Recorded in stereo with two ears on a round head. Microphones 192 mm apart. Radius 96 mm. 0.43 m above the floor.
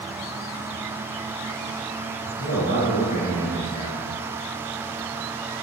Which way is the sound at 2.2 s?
35° left (ahead or behind).